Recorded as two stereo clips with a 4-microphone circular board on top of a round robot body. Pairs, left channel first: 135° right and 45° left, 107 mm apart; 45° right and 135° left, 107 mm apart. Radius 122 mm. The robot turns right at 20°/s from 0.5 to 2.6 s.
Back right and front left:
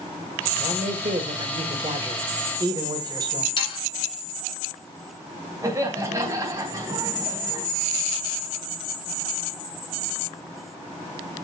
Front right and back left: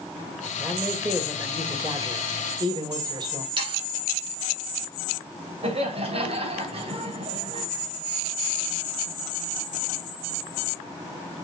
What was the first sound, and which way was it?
A man speaking, 50° left.